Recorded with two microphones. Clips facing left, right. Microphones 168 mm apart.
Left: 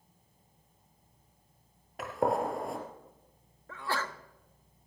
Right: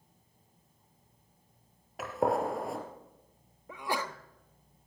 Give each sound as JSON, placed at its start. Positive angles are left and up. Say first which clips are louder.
{"t": 2.0, "sound": "a gunshot", "louder": "even", "side_deg": 0, "distance_m": 2.5}
{"t": 3.7, "sound": "a sneeze", "louder": "right 1 dB", "side_deg": -15, "distance_m": 0.8}